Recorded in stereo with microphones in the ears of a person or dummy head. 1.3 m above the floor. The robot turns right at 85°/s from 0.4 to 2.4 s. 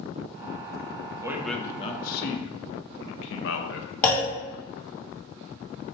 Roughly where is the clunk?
Centre.